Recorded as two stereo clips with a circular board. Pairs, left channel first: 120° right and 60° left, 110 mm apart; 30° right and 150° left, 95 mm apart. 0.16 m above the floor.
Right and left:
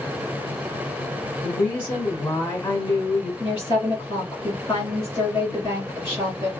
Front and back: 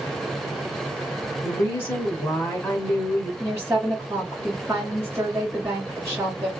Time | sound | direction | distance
1.4 | a woman speaking | 80° right | 1.3 m
3.4 | a woman speaking | 155° right | 2 m